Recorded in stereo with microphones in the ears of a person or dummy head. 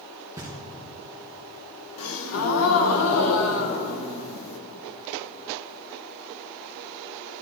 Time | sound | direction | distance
0.4 | knocking | 10° right (ahead or behind) | 1.1 m
2.0 | a gasp | 70° left (ahead or behind) | 0.9 m